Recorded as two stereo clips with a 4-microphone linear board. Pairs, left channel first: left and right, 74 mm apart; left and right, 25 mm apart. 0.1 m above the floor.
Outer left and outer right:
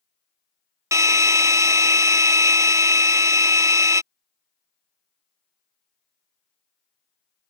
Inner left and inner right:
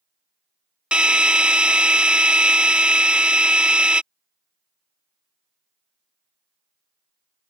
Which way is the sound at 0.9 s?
45° right (ahead or behind).